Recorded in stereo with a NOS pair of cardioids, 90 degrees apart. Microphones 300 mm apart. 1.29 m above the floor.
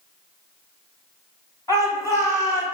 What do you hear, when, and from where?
1.7 s a shout: 10° left, 1.0 m